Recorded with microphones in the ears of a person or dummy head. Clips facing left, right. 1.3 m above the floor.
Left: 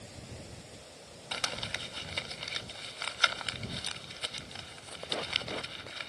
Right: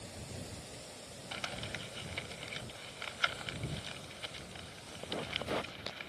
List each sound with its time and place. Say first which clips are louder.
1.3 s crumpling: left 4 dB; 65° left (ahead or behind)